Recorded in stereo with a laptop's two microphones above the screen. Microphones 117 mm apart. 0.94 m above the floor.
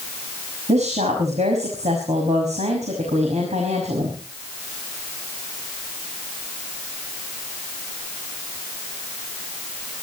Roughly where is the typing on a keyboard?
I don't hear typing on a keyboard.